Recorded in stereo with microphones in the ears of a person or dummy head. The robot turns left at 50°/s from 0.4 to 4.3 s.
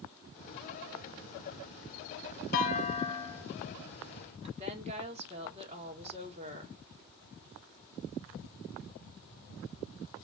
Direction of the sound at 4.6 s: 35° right (ahead or behind).